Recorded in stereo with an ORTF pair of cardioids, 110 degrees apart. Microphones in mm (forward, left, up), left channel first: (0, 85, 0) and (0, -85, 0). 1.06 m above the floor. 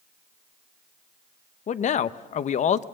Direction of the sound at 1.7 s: 45° left.